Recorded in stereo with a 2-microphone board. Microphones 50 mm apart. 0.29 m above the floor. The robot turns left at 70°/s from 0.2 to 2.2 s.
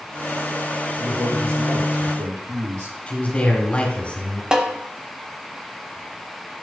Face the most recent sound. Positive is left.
turn(degrees=-15)  # may be behind; listen again after turning